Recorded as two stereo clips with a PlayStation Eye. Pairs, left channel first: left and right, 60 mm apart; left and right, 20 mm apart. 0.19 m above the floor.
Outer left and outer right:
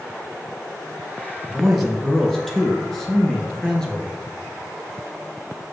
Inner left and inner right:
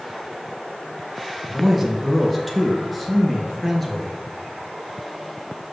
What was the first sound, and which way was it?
A man speaking, centre (ahead or behind).